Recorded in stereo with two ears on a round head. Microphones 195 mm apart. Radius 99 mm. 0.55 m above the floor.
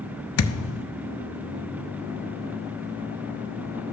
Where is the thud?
70° left (ahead or behind), 0.7 m.